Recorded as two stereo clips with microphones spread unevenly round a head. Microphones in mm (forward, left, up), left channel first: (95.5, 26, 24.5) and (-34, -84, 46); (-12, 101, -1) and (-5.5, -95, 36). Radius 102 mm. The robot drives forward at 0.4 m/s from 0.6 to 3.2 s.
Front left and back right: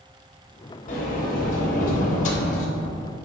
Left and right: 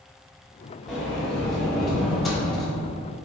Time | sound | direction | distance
0.9 | a sliding door | 5° right | 1.7 m